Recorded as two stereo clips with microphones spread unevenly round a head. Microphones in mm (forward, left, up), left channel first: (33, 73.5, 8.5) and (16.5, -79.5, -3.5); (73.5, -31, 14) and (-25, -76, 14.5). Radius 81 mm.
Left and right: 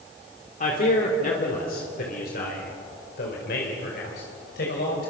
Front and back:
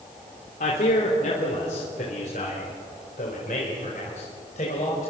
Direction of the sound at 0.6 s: 45° left.